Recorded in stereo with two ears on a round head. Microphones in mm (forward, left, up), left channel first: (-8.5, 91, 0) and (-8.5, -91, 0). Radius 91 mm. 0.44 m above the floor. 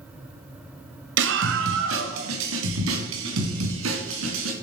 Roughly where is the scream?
Right.